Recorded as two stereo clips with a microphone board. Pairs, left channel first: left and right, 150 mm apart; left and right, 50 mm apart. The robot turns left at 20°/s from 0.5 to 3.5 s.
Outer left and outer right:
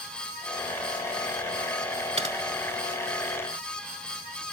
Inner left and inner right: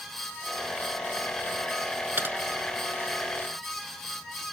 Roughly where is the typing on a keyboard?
Right.